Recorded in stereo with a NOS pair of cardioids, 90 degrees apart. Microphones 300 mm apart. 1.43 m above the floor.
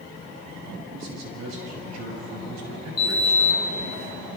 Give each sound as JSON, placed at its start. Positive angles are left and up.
{"t": 0.9, "sound": "a man speaking", "azimuth_deg": -65, "distance_m": 8.0}
{"t": 3.0, "sound": "a sliding door", "azimuth_deg": 30, "distance_m": 4.0}